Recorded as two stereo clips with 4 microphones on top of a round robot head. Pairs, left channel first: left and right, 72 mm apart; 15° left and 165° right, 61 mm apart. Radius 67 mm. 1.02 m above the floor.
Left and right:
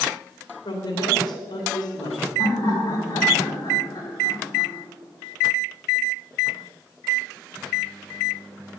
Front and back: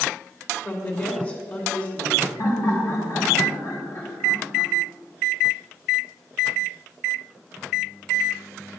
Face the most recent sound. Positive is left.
turn(degrees=55)